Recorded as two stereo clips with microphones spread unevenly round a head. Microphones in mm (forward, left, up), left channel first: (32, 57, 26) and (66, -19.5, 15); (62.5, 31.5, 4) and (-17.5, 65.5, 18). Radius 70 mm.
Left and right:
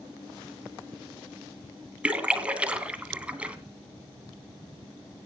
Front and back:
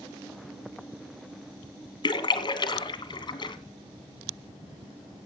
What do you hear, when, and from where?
2.0 s a splash: 10° left, 2 m